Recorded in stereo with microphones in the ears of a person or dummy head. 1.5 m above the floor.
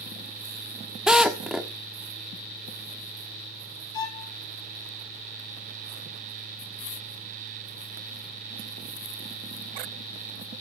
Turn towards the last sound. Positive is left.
turn(degrees=15)  # may be behind; listen again after turning